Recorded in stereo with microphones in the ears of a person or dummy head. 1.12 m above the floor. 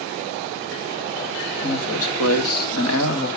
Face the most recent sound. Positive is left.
turn(degrees=60)  # may be behind; listen again after turning